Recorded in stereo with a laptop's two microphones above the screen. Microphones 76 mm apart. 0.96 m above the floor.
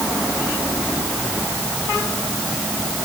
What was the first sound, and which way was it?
Only background noise.